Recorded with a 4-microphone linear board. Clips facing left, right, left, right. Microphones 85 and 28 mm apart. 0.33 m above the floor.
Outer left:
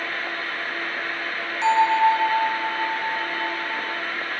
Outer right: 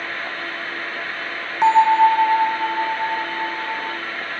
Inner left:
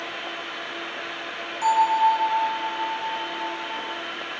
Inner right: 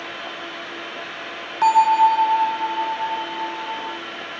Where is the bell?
50° right (ahead or behind), 1.0 m.